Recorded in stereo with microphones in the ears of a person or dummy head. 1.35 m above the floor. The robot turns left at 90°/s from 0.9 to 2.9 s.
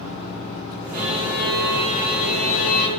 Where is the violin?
125° right, 0.7 m; by 2.9 s 60° left, 0.7 m.